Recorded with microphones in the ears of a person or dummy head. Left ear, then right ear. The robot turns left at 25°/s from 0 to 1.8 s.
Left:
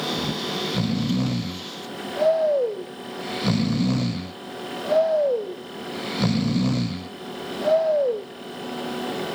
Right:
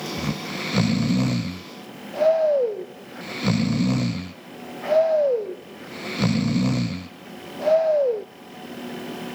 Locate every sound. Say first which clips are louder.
0.2 s snoring: left 3 dB; 30° right (ahead or behind); by 8.2 s centre (ahead or behind)